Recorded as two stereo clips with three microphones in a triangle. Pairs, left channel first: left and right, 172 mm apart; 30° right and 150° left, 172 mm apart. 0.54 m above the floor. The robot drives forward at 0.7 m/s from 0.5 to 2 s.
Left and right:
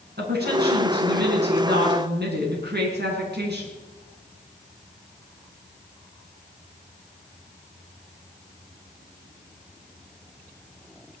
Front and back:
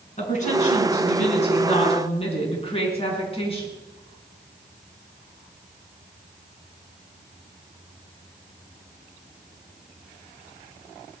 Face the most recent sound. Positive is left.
turn(degrees=-85)